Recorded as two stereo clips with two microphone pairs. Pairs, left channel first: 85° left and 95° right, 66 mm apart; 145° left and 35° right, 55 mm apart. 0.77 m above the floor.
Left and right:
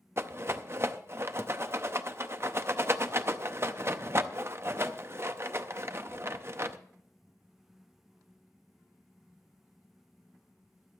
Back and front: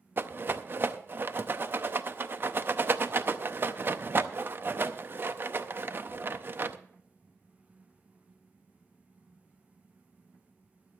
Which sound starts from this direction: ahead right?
A rattle, at 0.2 s.